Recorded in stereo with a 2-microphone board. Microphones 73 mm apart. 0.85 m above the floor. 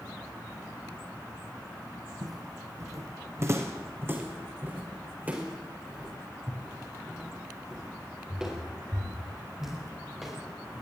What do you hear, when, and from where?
2.2 s footsteps: 60° right (ahead or behind), 2.5 m; by 10.8 s 5° right (ahead or behind), 10 m